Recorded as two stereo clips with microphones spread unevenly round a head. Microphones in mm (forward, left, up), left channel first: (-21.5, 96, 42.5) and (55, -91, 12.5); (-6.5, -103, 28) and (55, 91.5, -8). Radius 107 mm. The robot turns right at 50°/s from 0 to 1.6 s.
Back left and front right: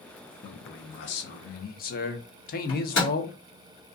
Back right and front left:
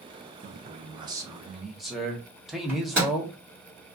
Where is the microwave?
150° left, 1.3 m.